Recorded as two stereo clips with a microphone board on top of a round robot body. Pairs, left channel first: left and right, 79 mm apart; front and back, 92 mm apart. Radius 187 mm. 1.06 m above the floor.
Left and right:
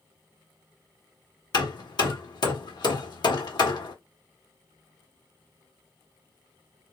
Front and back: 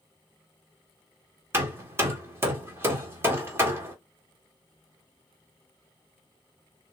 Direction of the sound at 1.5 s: 115° left.